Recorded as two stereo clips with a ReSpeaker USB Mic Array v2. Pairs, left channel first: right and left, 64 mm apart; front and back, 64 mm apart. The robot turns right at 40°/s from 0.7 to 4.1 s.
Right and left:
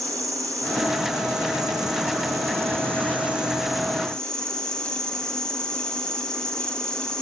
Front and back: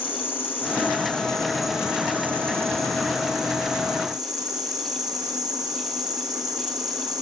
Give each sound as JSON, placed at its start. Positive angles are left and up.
{"t": 0.0, "sound": "an insect", "azimuth_deg": 55, "distance_m": 0.9}